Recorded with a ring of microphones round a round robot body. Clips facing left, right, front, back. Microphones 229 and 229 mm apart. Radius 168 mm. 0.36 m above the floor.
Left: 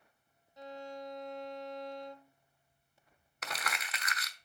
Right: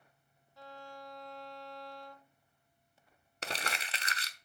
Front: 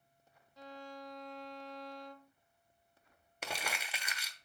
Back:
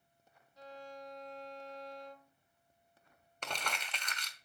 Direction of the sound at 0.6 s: 15° left.